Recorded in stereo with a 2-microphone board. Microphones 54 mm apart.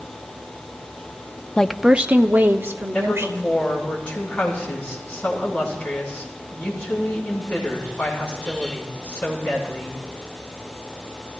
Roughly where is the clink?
No clink in this recording.